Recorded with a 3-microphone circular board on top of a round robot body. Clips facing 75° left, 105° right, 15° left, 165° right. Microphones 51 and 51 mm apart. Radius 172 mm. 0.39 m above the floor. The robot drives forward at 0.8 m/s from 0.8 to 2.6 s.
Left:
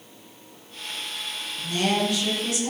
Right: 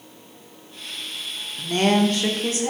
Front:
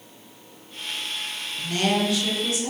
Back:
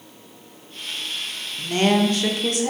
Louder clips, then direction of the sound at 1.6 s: Right 5 dB, back 5 dB; 105° right.